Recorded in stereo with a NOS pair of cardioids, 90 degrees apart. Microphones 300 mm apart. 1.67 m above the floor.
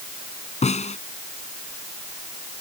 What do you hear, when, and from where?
0.6 s a snare drum: 25° left